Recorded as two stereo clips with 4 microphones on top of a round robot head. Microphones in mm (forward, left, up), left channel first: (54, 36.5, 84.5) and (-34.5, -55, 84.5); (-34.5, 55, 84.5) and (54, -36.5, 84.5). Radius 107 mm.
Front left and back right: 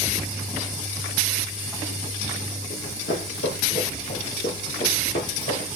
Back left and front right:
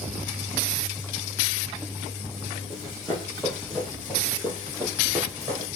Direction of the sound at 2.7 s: 45° left.